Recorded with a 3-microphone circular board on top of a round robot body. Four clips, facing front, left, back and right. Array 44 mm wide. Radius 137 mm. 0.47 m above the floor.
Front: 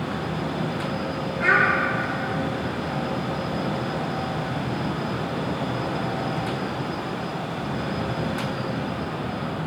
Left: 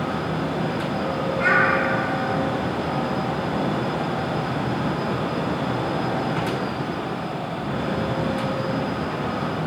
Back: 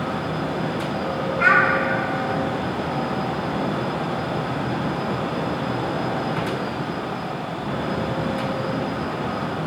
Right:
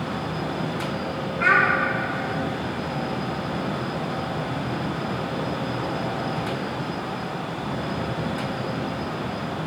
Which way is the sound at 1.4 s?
Straight behind.